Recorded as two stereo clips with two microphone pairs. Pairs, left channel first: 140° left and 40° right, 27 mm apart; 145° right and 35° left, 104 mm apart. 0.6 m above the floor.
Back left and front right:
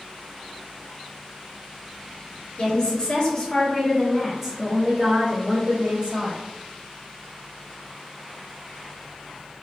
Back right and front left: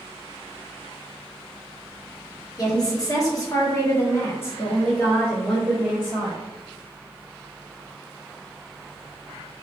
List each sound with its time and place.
2.6 s a woman speaking: 175° left, 1.3 m; by 6.4 s 50° right, 1.4 m